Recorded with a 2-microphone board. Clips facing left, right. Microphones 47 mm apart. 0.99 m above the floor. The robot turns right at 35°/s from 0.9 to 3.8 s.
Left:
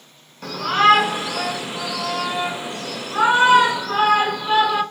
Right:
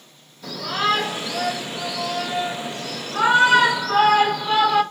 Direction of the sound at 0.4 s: 70° left.